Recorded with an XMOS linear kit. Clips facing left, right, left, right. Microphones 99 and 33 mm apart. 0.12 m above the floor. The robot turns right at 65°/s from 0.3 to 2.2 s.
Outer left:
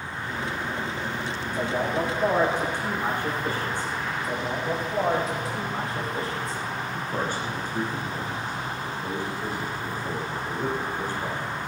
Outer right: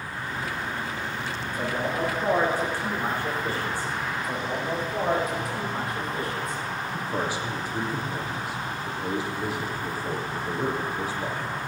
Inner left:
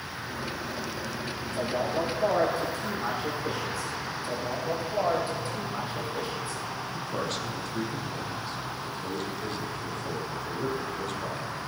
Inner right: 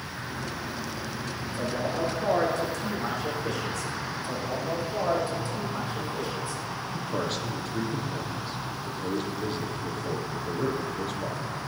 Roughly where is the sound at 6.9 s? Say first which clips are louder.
Outer right 1 dB, inner right 2 dB; centre.